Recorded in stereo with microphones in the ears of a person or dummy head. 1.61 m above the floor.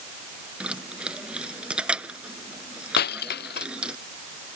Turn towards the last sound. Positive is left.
turn(degrees=65)  # may be behind; listen again after turning